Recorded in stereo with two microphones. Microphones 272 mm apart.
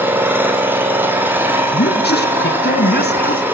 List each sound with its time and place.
0.0 s an engine running: 5° right (ahead or behind), 3 m
1.7 s a man speaking: 35° left (ahead or behind), 1.4 m